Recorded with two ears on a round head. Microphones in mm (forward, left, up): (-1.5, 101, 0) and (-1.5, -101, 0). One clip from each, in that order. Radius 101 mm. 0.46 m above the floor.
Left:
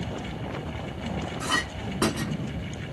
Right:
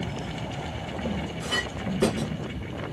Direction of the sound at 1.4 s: 45° left (ahead or behind).